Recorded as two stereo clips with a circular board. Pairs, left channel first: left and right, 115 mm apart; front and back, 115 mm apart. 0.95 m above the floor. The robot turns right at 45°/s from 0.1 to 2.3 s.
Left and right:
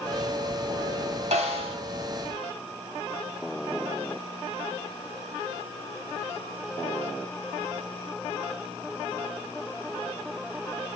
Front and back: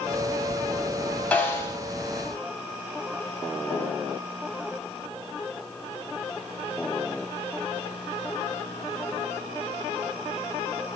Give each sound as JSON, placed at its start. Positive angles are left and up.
{"t": 1.3, "sound": "a snare drum", "azimuth_deg": -80, "distance_m": 2.5}